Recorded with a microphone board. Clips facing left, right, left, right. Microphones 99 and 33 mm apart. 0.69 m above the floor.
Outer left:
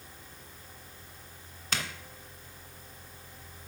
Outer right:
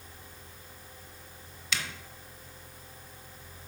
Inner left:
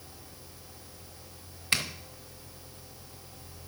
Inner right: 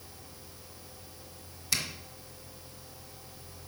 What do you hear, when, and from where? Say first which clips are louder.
1.7 s a zipper: outer left 1 dB, inner left 4 dB; 45° left (ahead or behind), 0.9 m